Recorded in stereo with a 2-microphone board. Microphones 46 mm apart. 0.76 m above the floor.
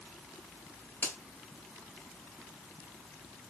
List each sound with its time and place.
1.0 s a finger snap: 65° left (ahead or behind), 2 m